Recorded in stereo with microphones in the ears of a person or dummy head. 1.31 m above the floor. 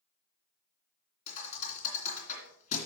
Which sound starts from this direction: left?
A thud, at 1.3 s.